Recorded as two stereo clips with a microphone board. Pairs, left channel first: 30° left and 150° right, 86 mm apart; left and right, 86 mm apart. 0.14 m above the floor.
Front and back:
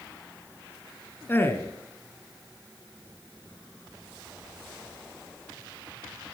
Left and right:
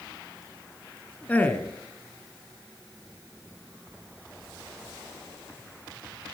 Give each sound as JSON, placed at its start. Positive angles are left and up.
{"t": 1.3, "sound": "a man speaking", "azimuth_deg": 45, "distance_m": 1.1}